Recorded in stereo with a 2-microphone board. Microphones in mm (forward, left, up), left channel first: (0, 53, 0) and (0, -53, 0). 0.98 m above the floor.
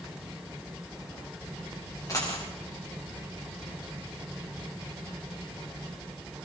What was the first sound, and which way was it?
A dropped coin, 30° left (ahead or behind).